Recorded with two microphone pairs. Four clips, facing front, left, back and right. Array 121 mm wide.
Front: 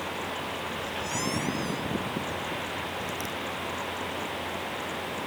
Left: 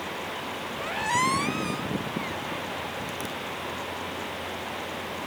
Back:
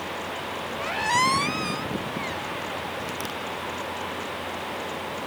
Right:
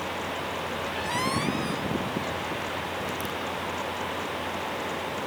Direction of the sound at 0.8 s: 155° left.